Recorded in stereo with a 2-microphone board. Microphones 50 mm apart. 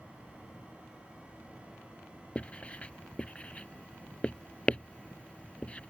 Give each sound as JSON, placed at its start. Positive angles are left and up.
{"t": 2.4, "sound": "writing", "side_deg": 25}